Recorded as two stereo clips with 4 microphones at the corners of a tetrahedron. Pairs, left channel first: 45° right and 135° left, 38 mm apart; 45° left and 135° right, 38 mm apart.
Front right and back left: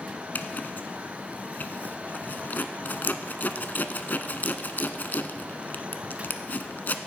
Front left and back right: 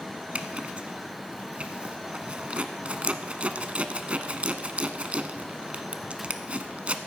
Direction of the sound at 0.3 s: 80° right.